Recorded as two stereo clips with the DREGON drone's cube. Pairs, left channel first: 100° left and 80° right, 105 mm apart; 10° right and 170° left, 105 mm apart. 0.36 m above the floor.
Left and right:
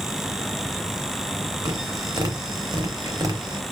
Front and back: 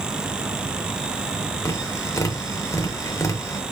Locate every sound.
1.6 s tapping: 60° right, 0.6 m